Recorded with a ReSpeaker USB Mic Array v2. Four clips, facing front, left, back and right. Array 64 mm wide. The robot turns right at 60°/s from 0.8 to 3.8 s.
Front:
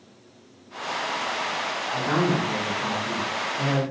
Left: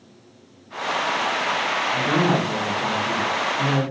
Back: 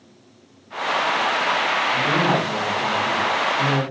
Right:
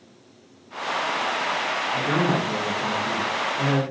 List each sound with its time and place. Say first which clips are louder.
1.9 s a man speaking: left 2 dB, back 1 dB; 160° right, 1.9 m; by 3.8 s 50° right, 1.9 m